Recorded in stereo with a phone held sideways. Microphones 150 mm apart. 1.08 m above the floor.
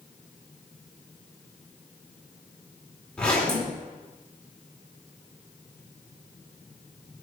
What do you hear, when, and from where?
3.2 s a zipper: 5° left (ahead or behind), 1.9 m